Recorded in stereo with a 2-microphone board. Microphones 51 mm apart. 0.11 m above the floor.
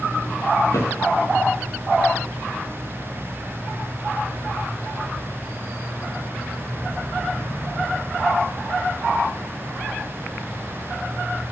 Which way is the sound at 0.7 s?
65° left (ahead or behind).